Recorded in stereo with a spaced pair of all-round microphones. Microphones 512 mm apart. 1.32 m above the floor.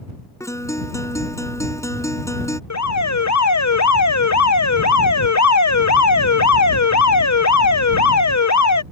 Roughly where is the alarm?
Left.